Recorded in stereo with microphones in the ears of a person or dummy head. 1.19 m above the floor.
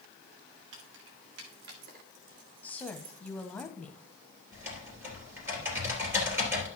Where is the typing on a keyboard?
20° right (ahead or behind), 3.5 m.